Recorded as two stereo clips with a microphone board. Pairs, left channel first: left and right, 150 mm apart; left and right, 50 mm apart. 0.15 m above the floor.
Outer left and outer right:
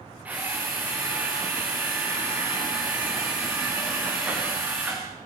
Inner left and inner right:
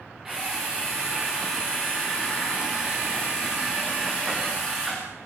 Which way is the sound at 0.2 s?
10° right (ahead or behind).